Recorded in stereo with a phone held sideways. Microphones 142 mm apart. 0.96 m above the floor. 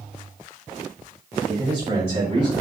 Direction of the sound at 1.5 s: 35° right (ahead or behind).